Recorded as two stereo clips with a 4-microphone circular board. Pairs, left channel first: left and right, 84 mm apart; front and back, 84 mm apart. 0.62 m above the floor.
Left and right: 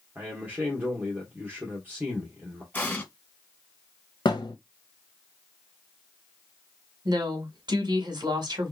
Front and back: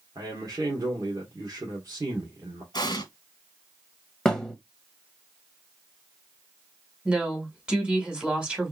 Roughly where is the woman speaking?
Right.